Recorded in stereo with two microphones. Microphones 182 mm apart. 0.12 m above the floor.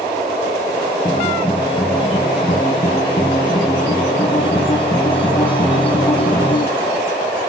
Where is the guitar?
25° left (ahead or behind), 1.8 m.